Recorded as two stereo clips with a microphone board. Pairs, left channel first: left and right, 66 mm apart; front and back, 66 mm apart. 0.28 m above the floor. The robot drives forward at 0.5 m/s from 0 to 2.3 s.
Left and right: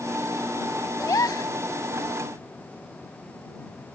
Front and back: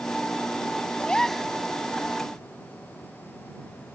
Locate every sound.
1.0 s a gasp: 70° left; by 1.5 s 95° left